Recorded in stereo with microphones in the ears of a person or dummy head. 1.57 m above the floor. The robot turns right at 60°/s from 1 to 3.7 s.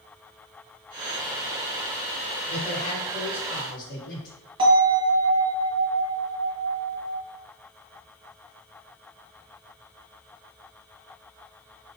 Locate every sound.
2.5 s a man speaking: 15° right, 1.5 m; by 4.4 s 55° left, 1.5 m
4.6 s a bell: 25° right (ahead or behind), 1.6 m